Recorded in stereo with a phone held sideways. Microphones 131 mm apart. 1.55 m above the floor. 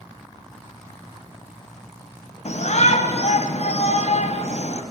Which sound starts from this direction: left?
A shout, at 2.5 s.